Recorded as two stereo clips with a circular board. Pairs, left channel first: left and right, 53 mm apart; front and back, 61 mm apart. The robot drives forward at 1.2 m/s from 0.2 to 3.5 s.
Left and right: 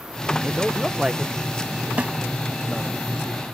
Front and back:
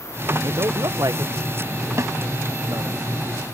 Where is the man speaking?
170° right; by 3.0 s 175° right.